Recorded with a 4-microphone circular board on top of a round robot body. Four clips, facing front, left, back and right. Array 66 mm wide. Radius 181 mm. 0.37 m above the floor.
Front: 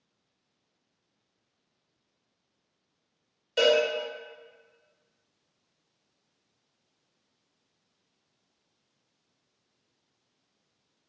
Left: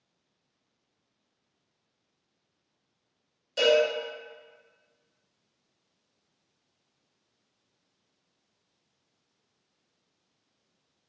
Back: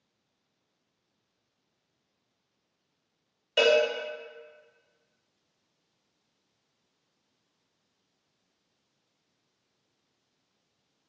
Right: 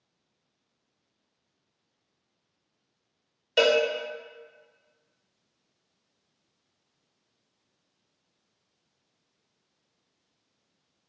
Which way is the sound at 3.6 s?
115° right.